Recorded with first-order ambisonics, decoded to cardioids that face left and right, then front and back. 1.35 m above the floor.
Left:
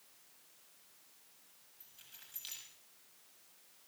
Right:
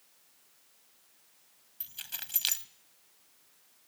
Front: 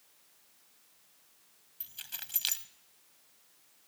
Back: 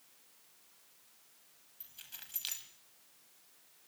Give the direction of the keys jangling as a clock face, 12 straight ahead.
2 o'clock.